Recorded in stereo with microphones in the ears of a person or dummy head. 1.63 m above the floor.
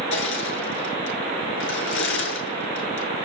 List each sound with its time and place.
0.1 s crushing: 80° left, 8 m